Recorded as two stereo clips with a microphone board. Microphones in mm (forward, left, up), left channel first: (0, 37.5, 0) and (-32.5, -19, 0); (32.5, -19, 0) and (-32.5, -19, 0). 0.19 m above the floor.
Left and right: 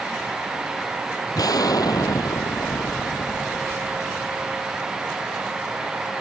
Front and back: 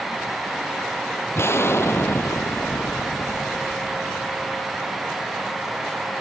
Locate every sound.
1.4 s an explosion: 50° left